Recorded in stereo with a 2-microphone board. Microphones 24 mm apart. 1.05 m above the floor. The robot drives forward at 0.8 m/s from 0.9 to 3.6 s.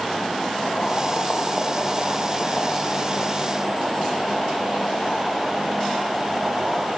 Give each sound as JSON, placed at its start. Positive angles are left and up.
{"t": 0.6, "sound": "boiling", "side_deg": 40, "distance_m": 0.6}